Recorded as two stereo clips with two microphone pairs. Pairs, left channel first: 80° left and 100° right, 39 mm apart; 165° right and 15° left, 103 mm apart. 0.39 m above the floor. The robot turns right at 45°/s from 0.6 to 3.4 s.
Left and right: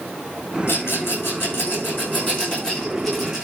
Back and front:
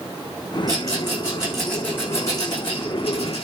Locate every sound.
0.7 s a rattle: 65° left, 7.5 m; by 3.5 s 175° right, 7.5 m